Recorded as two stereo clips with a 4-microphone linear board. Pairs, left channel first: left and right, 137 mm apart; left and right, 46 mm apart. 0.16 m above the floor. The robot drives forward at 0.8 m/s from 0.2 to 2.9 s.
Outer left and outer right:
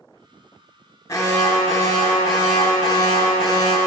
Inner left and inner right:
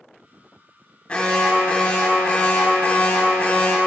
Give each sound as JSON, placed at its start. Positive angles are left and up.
{"t": 1.1, "sound": "an alarm", "side_deg": 20, "distance_m": 2.0}